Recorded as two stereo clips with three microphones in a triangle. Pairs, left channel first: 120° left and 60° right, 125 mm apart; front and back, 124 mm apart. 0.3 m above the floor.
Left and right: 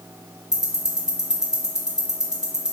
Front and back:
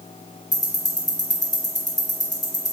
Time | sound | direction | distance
0.5 | ticking | 20° left | 0.6 m